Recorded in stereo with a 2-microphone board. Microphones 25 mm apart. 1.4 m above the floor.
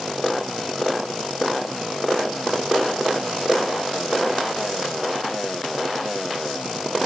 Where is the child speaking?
I don't hear a child speaking.